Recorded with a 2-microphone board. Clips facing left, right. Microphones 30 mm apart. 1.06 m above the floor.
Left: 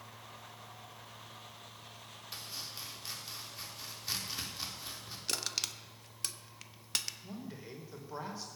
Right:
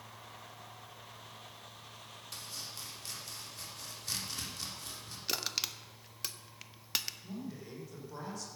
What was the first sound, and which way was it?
Chopping, 15° left (ahead or behind).